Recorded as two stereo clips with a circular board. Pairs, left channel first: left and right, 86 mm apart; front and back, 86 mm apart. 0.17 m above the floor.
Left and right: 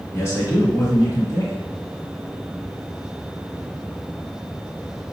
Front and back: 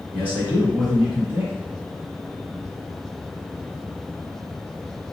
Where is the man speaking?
125° left, 1.9 m.